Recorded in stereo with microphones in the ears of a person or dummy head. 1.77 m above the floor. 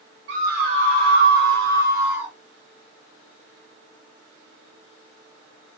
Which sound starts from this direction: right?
A scream, at 0.3 s.